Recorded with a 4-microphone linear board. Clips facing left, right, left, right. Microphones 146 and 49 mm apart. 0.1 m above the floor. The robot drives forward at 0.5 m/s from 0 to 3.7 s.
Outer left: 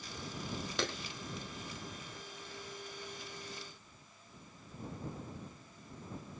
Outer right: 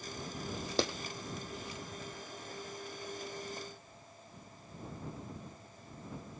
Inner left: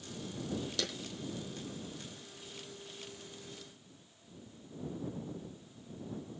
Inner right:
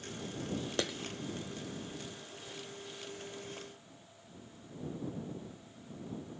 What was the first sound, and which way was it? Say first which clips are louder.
A clap: outer right 5 dB, inner right 6 dB; 35° right (ahead or behind).